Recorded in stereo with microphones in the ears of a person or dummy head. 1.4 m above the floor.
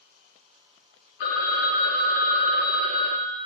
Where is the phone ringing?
60° left (ahead or behind), 0.6 m.